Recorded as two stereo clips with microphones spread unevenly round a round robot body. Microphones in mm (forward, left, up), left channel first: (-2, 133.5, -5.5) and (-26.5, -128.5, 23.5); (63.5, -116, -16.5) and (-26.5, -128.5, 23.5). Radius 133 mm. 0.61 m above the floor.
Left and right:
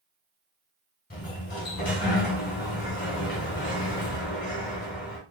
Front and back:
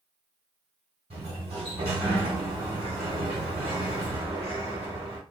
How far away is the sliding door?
About 1.1 m.